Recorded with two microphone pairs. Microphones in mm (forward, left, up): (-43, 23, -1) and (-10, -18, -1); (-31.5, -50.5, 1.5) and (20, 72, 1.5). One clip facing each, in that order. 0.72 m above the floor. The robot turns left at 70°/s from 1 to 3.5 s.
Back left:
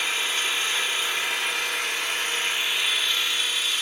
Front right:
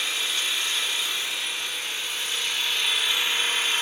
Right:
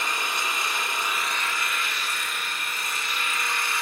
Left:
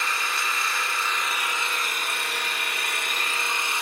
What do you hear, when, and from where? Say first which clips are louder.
0.0 s an engine running: back left 2 dB, even; 175° left, 1.3 m; by 3.8 s straight ahead, 1.3 m